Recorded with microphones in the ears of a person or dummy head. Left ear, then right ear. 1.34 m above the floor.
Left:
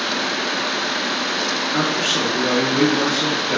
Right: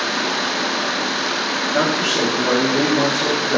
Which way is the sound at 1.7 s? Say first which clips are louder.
Right 2 dB; 70° left (ahead or behind).